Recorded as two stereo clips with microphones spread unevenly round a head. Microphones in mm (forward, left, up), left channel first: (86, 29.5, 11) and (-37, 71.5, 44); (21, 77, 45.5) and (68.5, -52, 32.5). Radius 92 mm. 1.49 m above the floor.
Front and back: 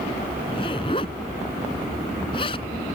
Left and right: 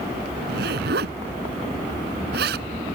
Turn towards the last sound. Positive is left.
turn(degrees=-85)